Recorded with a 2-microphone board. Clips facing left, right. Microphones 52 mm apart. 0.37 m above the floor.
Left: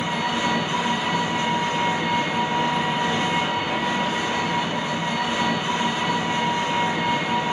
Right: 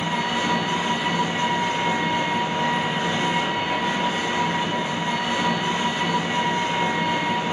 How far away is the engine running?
About 1.8 m.